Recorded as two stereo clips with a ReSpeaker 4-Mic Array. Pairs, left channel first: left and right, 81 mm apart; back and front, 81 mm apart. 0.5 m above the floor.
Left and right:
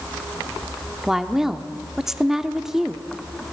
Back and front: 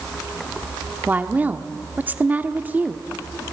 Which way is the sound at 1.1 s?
15° right.